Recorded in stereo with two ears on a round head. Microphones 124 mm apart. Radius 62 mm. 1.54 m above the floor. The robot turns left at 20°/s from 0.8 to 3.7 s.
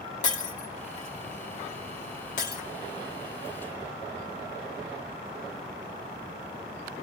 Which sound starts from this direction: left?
Breaking glass, at 0.2 s.